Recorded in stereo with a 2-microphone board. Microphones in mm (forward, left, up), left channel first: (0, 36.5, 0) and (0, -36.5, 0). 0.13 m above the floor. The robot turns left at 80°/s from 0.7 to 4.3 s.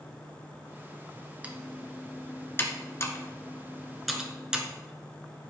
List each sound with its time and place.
1.4 s typing on a keyboard: 20° right (ahead or behind), 1.5 m; by 4.7 s 10° right (ahead or behind), 1.5 m